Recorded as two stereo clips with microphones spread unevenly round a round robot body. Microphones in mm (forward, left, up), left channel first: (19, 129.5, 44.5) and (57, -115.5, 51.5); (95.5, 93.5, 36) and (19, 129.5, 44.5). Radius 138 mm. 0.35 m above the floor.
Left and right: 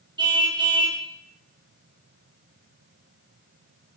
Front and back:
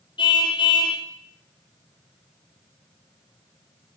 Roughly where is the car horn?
Ahead.